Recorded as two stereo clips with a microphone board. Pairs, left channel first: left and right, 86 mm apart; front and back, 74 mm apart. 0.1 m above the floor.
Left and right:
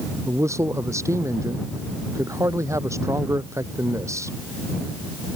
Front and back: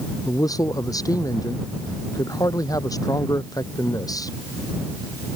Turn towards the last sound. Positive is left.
turn(degrees=-35)